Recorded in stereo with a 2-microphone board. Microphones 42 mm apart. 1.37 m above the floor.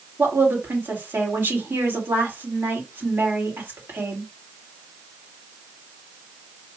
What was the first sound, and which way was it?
A woman speaking, 60° right (ahead or behind).